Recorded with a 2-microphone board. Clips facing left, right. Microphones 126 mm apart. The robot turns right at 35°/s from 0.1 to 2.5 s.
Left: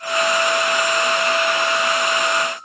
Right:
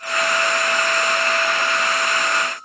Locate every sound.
Only background noise.